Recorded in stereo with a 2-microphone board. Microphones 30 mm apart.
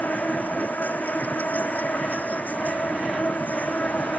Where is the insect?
85° left.